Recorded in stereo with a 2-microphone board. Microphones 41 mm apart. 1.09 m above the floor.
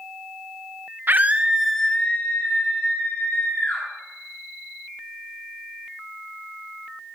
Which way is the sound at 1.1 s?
50° right (ahead or behind).